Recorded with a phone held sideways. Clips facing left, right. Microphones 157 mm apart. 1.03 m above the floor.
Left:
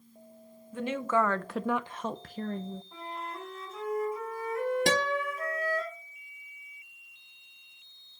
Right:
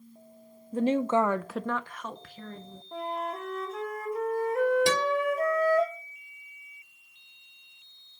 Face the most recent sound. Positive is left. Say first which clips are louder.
# right 3 dB
turn(degrees=55)  # may be behind; listen again after turning